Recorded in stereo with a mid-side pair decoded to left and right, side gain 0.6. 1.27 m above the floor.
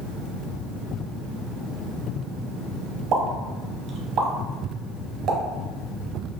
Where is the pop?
50° right, 0.7 m.